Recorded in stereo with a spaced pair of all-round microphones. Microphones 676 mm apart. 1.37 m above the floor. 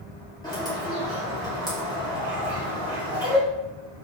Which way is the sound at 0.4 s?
5° left (ahead or behind).